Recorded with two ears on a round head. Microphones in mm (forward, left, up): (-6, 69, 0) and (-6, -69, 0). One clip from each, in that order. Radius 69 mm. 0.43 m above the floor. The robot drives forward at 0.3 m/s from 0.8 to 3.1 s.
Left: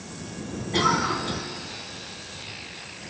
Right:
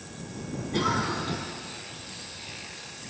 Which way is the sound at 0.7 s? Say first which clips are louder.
Left 5 dB; 35° left (ahead or behind).